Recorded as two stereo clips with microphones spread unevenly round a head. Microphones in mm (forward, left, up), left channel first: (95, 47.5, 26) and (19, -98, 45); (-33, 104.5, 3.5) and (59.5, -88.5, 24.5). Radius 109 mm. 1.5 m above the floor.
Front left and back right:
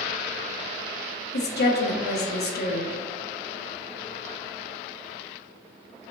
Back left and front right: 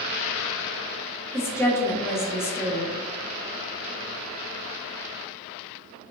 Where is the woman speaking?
35° left, 0.5 m.